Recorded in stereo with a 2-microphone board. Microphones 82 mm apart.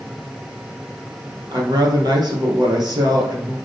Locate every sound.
1.5 s a woman speaking: 60° right (ahead or behind), 2.5 m